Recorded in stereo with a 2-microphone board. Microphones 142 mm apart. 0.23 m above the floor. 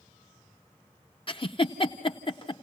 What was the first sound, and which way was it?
A giggle, 35° left (ahead or behind).